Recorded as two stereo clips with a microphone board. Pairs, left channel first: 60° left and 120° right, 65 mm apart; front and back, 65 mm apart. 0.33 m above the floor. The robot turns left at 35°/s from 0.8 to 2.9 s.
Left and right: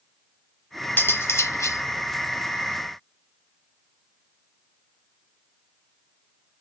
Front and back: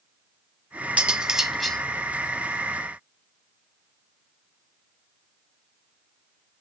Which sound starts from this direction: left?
Cutlery clinking, at 1.0 s.